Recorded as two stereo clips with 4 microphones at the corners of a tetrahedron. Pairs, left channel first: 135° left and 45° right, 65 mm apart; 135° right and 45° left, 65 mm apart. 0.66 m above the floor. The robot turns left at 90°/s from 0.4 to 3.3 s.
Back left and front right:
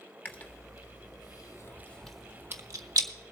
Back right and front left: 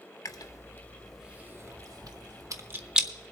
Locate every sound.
0.2 s chewing: 160° right, 0.9 m; by 3.1 s 40° right, 0.9 m